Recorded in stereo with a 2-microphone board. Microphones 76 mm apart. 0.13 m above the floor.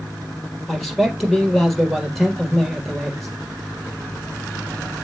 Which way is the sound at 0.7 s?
5° left (ahead or behind).